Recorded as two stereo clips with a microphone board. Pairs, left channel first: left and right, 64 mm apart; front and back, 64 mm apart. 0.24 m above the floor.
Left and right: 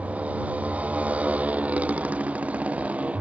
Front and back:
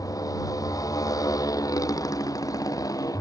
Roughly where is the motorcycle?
Ahead.